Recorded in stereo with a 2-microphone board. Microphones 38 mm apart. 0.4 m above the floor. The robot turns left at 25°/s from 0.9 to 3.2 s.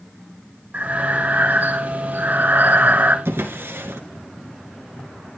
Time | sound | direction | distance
0.7 | breathing | 60° right | 1.5 m
3.2 | a drawer | 80° right | 2 m